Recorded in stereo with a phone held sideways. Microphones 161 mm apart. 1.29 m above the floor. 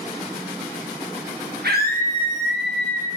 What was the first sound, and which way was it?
A scream, 80° right.